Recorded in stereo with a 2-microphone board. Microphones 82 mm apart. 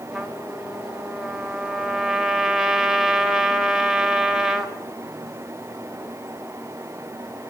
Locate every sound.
0.1 s a trumpet: 10° right (ahead or behind), 1.4 m